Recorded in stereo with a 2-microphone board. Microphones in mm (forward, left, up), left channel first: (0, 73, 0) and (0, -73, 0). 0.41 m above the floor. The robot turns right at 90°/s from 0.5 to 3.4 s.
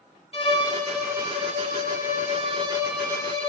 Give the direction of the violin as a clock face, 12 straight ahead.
7 o'clock.